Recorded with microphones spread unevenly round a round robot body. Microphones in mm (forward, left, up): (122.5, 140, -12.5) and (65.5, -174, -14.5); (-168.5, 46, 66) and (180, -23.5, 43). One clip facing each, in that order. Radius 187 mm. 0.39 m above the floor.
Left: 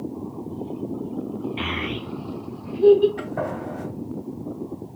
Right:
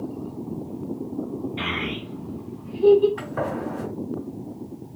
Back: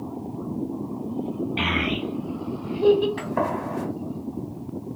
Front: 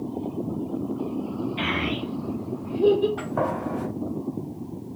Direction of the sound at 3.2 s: 175° right.